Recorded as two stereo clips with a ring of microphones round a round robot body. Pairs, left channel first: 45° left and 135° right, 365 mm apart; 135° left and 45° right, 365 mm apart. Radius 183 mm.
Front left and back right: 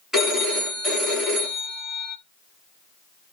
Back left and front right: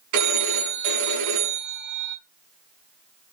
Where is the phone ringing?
45° right, 4.5 m.